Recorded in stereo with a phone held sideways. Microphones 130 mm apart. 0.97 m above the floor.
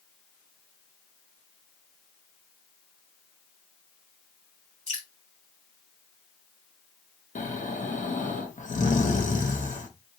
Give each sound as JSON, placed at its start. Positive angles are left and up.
{"t": 4.9, "sound": "dripping", "side_deg": 65, "distance_m": 2.5}
{"t": 7.3, "sound": "snoring", "side_deg": 75, "distance_m": 0.9}